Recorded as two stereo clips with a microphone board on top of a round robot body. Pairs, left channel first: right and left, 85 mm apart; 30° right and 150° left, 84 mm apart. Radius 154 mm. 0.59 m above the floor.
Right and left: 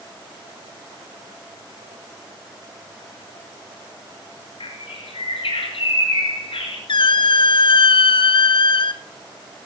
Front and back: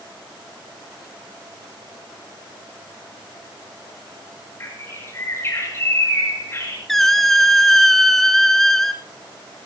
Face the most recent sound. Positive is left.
turn(degrees=-115)